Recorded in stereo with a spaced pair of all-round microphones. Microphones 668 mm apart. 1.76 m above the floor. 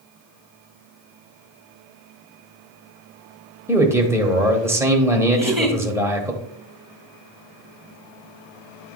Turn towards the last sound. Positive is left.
turn(degrees=0)  # may be behind; listen again after turning